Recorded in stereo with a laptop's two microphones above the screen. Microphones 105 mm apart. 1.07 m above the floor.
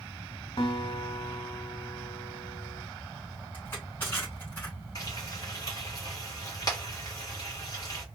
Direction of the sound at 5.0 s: 35° left (ahead or behind).